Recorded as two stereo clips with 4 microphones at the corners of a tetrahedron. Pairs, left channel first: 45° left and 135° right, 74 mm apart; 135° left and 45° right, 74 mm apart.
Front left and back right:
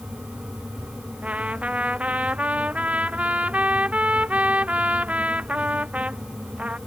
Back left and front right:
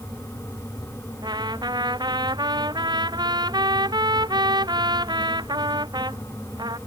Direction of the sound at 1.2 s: 60° right.